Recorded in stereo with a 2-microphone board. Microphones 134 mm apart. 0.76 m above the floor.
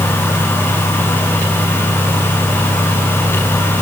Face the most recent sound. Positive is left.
No sound to turn to.